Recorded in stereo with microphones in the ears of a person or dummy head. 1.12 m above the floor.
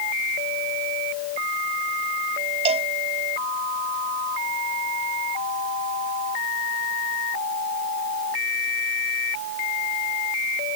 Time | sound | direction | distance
2.6 | a cowbell | 40° right (ahead or behind) | ?